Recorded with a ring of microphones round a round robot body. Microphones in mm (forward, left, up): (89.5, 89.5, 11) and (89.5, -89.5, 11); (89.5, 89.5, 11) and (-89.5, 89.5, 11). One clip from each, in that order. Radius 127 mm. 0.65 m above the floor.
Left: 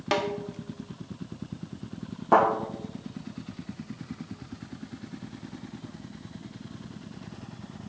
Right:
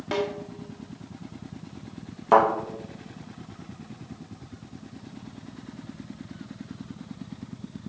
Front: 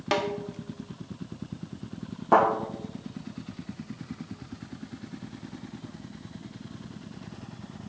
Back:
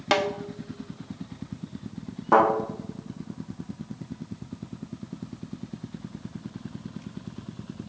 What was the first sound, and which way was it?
A snare drum, 135° left.